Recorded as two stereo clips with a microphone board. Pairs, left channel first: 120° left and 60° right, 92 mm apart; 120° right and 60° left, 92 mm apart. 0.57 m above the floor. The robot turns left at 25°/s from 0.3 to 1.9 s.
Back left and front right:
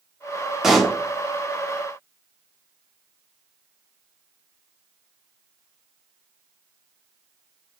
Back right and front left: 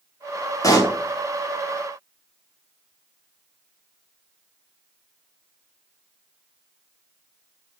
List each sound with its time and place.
0.6 s a pop: 145° right, 1.4 m; by 1.0 s 150° right, 1.4 m